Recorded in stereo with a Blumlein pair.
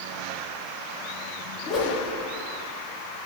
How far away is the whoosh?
About 3 m.